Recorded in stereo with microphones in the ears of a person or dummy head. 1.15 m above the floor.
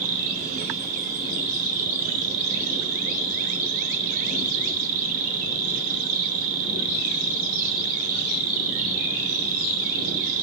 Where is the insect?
45° right (ahead or behind), 0.8 m.